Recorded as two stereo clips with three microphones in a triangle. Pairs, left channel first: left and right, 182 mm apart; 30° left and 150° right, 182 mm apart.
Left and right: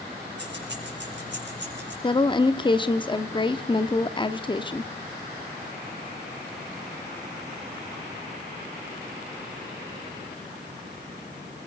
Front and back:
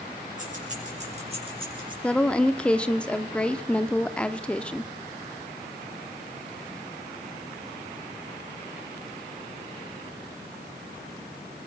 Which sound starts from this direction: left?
A woman speaking, at 2.0 s.